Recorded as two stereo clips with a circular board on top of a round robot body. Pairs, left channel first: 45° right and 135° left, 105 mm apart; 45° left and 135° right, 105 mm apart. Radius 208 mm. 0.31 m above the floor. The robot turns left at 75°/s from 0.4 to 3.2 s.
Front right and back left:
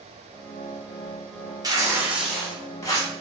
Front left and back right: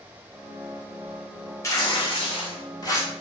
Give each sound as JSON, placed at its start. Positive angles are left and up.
{"t": 1.6, "sound": "tearing paper", "azimuth_deg": 100, "distance_m": 1.3}